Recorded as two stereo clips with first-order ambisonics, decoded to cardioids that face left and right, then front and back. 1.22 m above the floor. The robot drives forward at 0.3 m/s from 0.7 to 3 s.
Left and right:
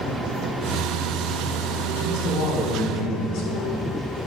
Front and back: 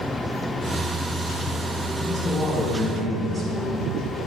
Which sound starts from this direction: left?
A man speaking, at 2.0 s.